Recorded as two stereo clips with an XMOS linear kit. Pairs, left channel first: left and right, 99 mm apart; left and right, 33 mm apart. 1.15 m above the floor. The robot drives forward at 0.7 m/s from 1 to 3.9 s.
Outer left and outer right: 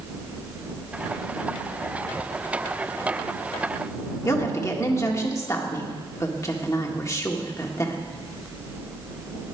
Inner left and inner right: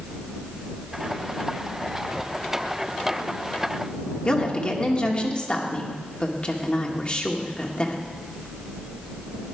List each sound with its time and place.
4.2 s a woman speaking: 35° left (ahead or behind), 1.7 m